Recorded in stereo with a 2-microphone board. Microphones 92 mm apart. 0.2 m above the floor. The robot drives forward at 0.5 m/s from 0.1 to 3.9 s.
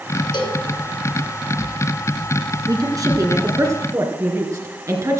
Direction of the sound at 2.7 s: 40° right (ahead or behind).